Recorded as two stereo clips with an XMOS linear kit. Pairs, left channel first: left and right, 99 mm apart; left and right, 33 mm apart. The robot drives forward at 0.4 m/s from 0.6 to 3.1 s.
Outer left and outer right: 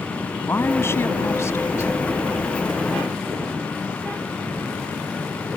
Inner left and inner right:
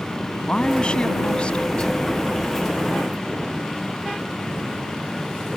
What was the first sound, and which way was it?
A woman speaking, 25° left (ahead or behind).